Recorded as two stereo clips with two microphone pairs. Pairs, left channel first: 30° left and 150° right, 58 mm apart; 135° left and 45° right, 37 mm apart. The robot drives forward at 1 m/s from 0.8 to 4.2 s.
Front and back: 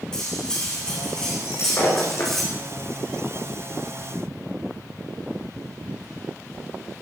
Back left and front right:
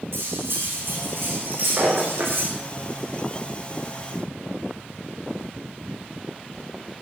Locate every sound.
0.1 s cutlery clinking: 50° right, 9 m; by 2.5 s 55° right, 8 m
1.4 s breaking glass: 10° right, 6 m